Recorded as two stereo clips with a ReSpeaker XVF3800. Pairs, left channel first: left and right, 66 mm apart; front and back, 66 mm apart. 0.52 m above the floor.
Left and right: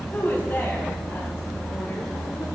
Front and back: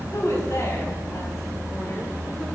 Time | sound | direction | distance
0.1 | a woman speaking | 30° left | 3 m